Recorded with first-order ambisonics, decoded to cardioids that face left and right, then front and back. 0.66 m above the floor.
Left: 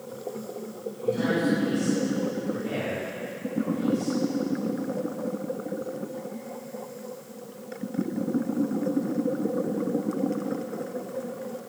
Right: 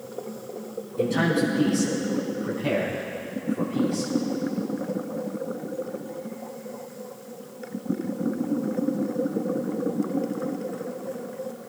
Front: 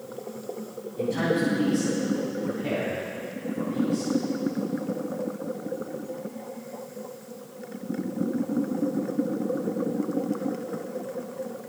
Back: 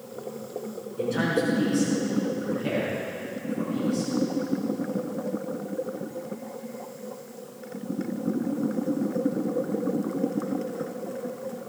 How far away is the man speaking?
About 4.5 m.